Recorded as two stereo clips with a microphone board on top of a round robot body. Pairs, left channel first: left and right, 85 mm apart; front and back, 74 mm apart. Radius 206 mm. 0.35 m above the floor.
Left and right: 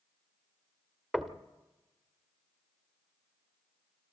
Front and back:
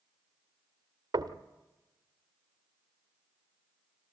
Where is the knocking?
175° right, 1.3 m.